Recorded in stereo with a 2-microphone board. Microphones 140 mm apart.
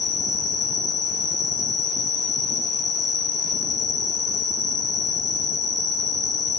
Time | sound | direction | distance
0.0 | an insect | 30° left (ahead or behind) | 0.8 m